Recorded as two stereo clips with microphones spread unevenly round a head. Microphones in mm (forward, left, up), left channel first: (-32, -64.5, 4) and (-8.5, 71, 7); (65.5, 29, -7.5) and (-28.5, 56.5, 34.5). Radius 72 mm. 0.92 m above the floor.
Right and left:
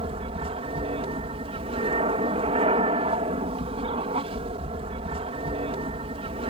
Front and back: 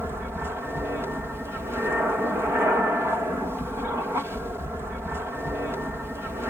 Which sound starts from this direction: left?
An aircraft, at 0.0 s.